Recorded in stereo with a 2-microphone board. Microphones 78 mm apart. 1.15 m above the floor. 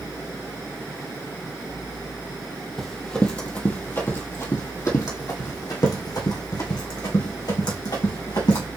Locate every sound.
2.8 s running footsteps: 5° left (ahead or behind), 1.4 m; by 8.7 s 70° left (ahead or behind), 3 m